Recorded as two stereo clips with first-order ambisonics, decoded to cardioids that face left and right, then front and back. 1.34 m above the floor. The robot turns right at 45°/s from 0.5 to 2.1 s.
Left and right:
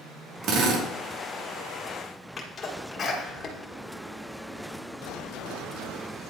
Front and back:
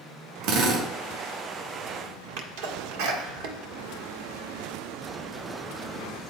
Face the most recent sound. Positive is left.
turn(degrees=165)